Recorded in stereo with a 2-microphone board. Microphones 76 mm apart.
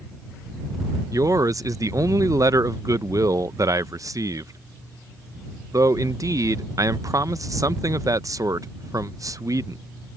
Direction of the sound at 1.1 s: 50° right (ahead or behind).